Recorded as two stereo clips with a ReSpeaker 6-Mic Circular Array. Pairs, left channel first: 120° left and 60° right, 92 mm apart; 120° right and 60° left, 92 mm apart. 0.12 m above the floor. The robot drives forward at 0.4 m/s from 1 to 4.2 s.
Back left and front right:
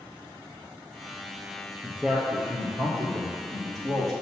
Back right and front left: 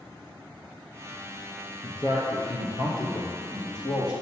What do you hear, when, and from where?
1.8 s a man speaking: 140° right, 1.9 m; by 4.1 s 155° right, 2.5 m